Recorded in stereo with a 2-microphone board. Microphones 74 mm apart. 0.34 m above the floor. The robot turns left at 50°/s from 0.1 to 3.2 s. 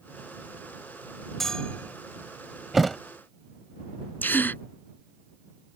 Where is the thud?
5° right (ahead or behind); by 3.0 s 5° left (ahead or behind).